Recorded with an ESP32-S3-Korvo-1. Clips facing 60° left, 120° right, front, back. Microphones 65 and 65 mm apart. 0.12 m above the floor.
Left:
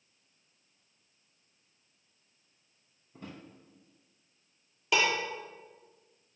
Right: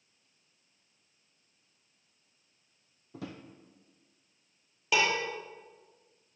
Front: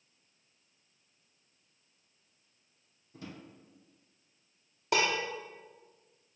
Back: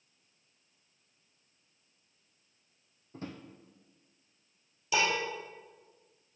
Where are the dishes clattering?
30° right, 2.5 m.